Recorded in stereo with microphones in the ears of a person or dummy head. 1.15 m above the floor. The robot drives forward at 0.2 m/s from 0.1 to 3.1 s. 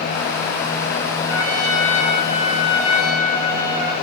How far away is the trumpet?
About 1.2 m.